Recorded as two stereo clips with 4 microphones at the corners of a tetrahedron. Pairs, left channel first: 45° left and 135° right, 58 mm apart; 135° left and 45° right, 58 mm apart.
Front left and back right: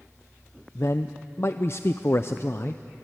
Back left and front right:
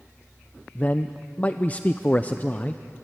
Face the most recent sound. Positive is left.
turn(degrees=75)